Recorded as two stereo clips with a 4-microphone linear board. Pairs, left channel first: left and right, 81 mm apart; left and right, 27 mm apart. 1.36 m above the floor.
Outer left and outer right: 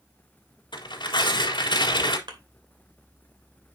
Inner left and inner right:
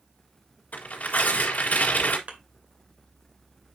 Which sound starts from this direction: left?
Tearing paper, at 0.7 s.